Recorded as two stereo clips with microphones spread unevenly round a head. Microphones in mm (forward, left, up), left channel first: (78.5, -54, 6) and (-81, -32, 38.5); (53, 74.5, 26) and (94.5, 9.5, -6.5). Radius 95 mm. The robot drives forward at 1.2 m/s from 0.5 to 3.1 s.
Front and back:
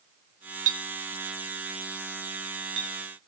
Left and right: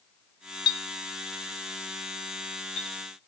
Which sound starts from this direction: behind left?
A clink, at 0.7 s.